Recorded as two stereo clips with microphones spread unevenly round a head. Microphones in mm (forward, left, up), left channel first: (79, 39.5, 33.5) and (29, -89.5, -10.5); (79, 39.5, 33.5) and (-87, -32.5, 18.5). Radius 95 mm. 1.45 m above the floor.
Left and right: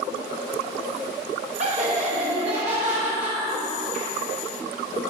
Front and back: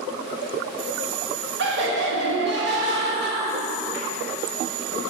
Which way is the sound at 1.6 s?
145° right.